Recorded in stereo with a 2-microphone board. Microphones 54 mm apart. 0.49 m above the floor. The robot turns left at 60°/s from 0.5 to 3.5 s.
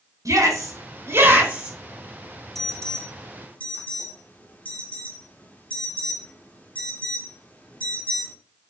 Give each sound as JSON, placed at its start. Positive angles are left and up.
{"t": 0.2, "sound": "a shout", "side_deg": -80, "distance_m": 4.0}
{"t": 2.5, "sound": "an alarm", "side_deg": 10, "distance_m": 1.7}